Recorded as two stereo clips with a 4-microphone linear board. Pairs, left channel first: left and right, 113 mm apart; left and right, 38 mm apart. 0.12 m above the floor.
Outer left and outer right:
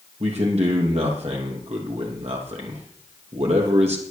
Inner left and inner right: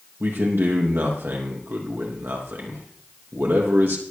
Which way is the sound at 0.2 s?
70° right (ahead or behind).